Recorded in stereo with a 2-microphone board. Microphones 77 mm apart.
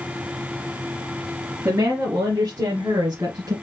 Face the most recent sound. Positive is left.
turn(degrees=-55)  # may be behind; listen again after turning